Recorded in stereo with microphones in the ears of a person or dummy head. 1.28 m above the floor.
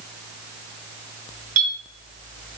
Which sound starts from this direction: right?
A clink, at 1.6 s.